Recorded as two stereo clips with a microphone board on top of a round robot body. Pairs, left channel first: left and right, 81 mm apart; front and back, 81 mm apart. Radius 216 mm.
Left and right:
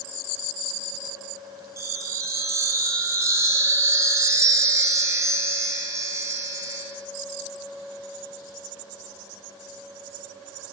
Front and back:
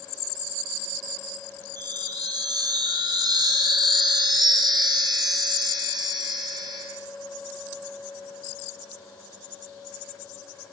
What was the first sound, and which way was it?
A chime, 145° right.